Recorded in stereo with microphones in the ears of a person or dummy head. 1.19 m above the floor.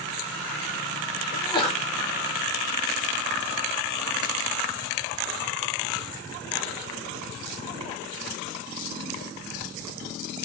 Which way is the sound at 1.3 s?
25° left (ahead or behind).